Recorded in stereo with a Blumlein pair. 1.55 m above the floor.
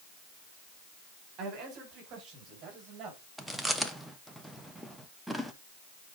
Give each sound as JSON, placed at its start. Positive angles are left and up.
{"t": 1.4, "sound": "a man speaking", "azimuth_deg": -30, "distance_m": 5.5}
{"t": 3.4, "sound": "chewing", "azimuth_deg": 0, "distance_m": 1.0}